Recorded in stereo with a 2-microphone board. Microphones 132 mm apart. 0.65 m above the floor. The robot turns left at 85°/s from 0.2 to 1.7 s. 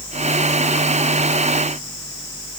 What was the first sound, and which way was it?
Only background noise.